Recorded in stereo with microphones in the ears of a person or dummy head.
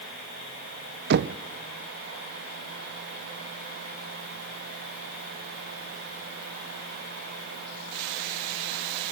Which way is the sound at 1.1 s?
65° right (ahead or behind).